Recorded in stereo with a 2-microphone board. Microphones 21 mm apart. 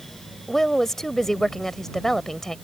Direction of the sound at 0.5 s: 15° left (ahead or behind).